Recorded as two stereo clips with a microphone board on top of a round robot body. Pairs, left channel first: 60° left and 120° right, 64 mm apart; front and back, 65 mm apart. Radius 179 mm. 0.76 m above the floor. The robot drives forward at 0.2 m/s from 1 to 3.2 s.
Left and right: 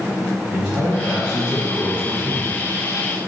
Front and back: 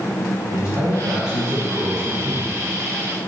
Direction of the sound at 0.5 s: 160° left.